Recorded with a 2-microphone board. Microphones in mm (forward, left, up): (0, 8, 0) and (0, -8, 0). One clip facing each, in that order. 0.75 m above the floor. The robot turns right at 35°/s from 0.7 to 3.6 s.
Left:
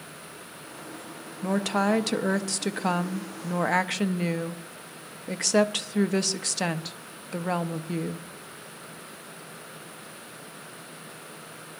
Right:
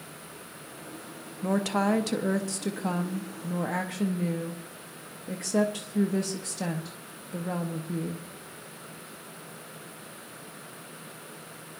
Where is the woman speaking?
10° left, 0.7 m; by 8.3 s 90° left, 0.7 m.